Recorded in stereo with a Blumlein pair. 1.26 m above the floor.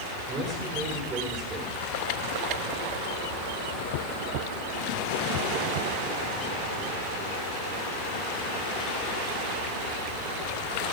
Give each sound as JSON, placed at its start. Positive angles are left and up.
{"t": 0.3, "sound": "a man speaking", "azimuth_deg": -25, "distance_m": 3.5}